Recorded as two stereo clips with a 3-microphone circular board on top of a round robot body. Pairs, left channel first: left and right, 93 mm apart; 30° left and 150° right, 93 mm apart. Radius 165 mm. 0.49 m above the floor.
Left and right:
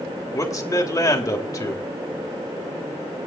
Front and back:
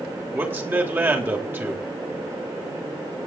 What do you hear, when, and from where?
0.3 s a man speaking: 145° left, 3.5 m